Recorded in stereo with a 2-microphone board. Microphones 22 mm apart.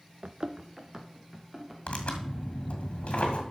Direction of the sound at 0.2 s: 65° right (ahead or behind).